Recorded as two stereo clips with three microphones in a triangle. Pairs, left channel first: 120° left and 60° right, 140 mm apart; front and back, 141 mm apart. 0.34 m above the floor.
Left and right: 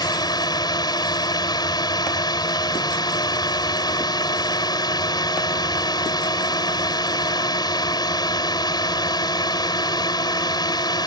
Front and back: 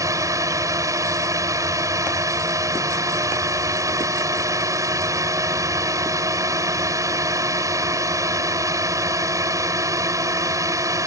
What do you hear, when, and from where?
0.0 s a drone: 140° left